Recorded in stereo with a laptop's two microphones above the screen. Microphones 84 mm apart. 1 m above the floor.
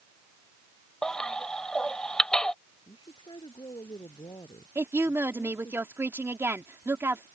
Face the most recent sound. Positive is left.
turn(degrees=-30)  # may be behind; listen again after turning